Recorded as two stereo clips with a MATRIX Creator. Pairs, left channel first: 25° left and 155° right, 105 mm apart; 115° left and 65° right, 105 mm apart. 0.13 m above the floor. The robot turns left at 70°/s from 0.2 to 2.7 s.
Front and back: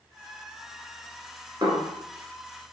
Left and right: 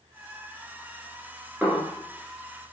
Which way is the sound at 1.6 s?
145° right.